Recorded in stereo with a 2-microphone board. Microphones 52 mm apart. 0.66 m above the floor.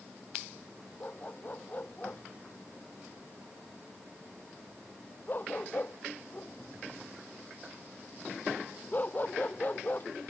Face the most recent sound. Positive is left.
turn(degrees=40)  # may be behind; listen again after turning